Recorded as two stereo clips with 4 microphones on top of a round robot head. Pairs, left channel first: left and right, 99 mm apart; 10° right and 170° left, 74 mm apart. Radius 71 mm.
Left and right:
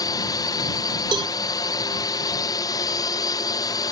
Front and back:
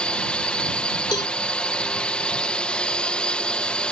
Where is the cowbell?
45° right.